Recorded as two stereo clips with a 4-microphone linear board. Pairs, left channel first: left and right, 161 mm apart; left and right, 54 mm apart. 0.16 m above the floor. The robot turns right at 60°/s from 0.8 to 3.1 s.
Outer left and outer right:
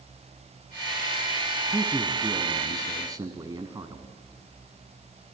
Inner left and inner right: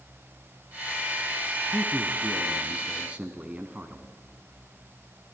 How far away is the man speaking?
About 1.2 m.